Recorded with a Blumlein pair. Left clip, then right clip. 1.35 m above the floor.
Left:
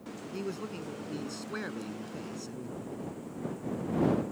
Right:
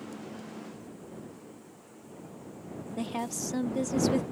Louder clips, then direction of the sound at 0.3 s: Left 6 dB; 45° left.